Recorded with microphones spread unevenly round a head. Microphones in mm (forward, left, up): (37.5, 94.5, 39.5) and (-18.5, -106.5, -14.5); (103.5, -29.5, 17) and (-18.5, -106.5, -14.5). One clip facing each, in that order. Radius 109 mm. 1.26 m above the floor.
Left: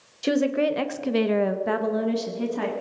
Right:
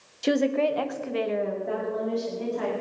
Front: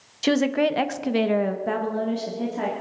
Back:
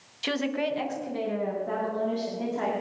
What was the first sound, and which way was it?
A woman speaking, 10° right.